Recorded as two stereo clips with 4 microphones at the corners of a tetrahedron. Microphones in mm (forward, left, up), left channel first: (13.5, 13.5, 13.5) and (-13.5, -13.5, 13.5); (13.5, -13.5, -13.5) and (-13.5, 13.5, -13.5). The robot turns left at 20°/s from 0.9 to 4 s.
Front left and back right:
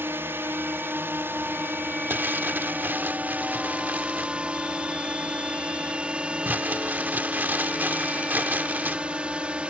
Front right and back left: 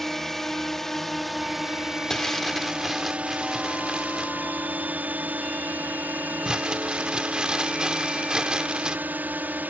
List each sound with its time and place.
0.0 s a drone: 130° right; by 9.7 s 170° left
2.1 s crumpling: 125° right; by 9.0 s 160° right